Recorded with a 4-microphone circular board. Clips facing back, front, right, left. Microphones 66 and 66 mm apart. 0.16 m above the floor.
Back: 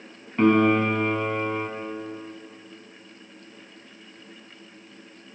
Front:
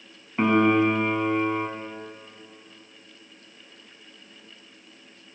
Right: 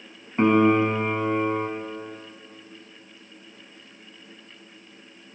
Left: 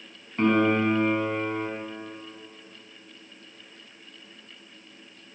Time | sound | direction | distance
0.4 | a piano | 65° right | 0.9 m